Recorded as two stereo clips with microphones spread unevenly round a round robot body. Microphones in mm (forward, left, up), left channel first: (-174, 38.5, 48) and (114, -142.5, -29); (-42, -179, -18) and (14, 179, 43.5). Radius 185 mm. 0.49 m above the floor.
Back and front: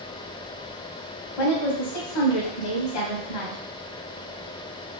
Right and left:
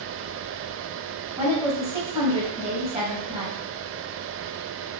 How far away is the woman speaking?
About 3 m.